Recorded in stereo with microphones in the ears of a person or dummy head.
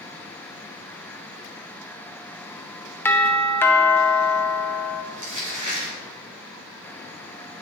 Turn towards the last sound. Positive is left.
turn(degrees=-40)  # may be behind; listen again after turning